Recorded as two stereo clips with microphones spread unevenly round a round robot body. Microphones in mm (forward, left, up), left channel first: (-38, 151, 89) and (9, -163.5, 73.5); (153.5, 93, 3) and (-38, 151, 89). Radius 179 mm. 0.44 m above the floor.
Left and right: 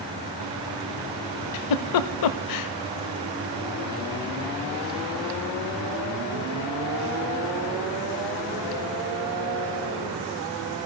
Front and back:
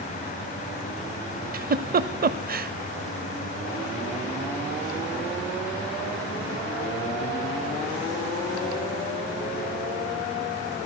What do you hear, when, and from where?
1.5 s a giggle: 120° left, 0.6 m